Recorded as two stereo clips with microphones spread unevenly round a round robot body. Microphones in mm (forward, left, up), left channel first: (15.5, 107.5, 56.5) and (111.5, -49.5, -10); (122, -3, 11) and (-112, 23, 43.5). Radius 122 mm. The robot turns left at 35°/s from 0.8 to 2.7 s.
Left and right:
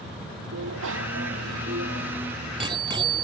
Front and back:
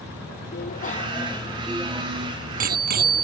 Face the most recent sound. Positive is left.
turn(degrees=-130)